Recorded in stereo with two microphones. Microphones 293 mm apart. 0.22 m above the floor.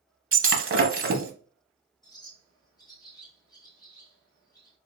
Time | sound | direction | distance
0.3 | breaking glass | 45° right (ahead or behind) | 0.7 m
2.0 | a bird | 15° left (ahead or behind) | 2.5 m